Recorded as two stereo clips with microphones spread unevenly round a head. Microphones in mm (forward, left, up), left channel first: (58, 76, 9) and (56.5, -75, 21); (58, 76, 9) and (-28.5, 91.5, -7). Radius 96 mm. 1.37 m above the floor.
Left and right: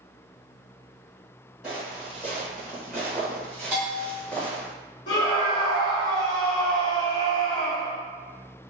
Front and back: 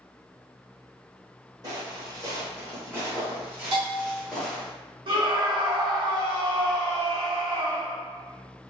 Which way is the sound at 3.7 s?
Straight behind.